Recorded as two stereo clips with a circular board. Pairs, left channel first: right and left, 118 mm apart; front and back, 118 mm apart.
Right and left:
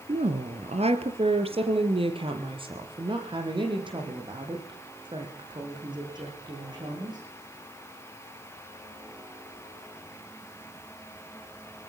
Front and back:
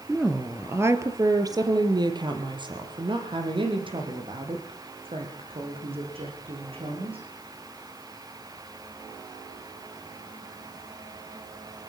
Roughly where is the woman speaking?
Left.